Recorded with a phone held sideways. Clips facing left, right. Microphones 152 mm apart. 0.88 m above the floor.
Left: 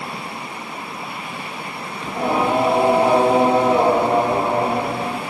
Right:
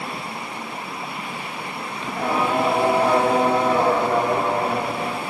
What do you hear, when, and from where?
2.0 s singing: 20° left (ahead or behind), 1.4 m